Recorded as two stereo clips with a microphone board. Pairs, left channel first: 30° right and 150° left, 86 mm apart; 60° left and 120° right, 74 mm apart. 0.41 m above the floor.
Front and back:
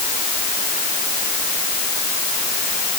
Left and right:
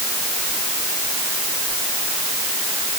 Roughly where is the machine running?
I don't hear a machine running.